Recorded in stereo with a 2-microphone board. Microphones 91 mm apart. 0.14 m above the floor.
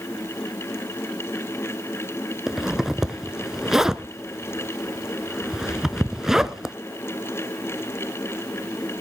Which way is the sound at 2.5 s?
5° right (ahead or behind).